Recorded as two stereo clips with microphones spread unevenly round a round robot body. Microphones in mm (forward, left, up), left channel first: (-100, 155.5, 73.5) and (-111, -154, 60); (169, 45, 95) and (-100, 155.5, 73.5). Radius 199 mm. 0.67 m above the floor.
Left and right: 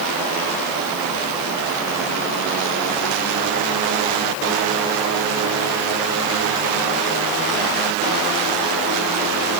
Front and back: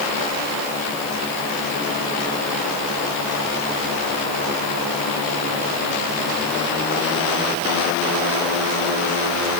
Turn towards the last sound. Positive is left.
No sound to turn to.